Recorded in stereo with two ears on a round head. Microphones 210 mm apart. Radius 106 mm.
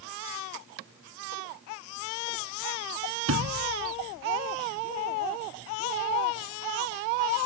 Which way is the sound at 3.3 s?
70° right (ahead or behind).